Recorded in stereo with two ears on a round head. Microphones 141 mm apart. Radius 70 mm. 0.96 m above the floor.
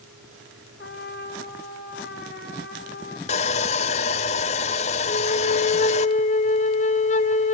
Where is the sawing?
45° left (ahead or behind), 0.9 m.